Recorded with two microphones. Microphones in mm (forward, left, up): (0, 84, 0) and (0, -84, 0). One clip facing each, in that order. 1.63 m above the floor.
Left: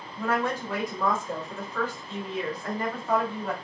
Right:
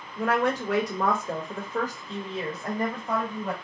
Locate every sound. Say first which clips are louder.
0.2 s a woman speaking: right 3 dB; 75° right (ahead or behind), 0.9 m; by 3.5 s 10° right (ahead or behind), 1.5 m